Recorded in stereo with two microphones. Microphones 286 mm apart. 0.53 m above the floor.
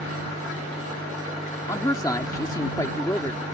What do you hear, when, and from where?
1.7 s a man speaking: 15° left (ahead or behind)